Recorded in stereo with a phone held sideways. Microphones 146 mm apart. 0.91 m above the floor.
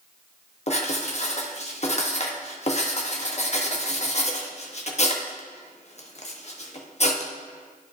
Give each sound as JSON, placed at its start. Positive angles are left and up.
{"t": 0.7, "sound": "writing", "side_deg": 50, "distance_m": 1.1}